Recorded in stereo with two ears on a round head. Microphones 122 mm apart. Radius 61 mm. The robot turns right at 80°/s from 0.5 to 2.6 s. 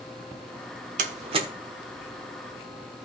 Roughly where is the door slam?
Right.